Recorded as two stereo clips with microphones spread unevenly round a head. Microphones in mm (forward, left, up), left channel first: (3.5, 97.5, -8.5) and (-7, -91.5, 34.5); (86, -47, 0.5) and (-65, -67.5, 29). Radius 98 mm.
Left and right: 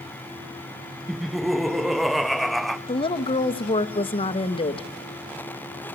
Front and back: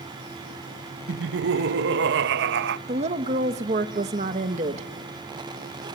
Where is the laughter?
175° left, 0.6 m.